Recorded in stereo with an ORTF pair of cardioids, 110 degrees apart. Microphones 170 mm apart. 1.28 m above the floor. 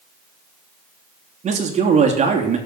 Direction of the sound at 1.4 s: 40° right.